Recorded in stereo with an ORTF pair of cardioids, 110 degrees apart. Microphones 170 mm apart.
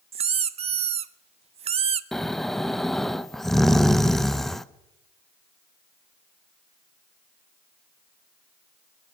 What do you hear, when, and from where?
0.1 s a squeak: 35° right, 0.6 m
2.1 s snoring: straight ahead, 0.5 m